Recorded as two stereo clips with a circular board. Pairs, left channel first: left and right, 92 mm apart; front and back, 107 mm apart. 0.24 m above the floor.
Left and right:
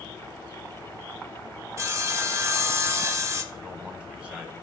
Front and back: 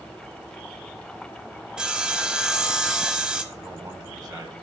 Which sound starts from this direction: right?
Sawing, at 1.8 s.